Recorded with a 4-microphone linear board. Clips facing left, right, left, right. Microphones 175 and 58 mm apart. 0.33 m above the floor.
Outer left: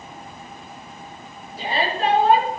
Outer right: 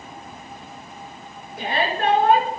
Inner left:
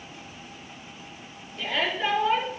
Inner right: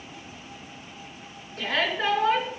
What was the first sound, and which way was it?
A shout, 65° right (ahead or behind).